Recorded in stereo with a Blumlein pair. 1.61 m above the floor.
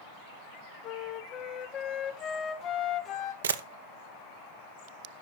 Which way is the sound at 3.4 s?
65° right.